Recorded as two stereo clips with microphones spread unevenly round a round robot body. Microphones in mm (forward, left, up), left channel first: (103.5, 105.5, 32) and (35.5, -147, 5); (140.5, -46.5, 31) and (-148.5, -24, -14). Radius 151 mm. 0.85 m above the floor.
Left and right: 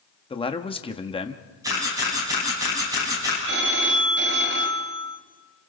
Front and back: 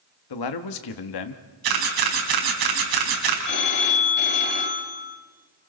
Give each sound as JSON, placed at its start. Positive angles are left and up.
{"t": 0.3, "sound": "a man speaking", "azimuth_deg": 5, "distance_m": 1.3}
{"t": 1.6, "sound": "a camera shutter", "azimuth_deg": 175, "distance_m": 5.0}
{"t": 3.5, "sound": "a phone ringing", "azimuth_deg": -60, "distance_m": 2.5}